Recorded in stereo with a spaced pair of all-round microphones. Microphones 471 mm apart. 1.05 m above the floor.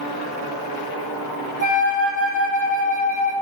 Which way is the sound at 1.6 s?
40° left (ahead or behind).